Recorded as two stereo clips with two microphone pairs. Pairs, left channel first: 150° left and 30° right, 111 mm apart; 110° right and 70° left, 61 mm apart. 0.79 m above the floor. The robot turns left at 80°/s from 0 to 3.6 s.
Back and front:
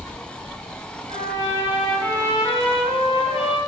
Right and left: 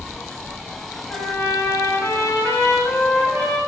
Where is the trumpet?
55° right, 6 m; by 3.6 s 105° left, 6 m.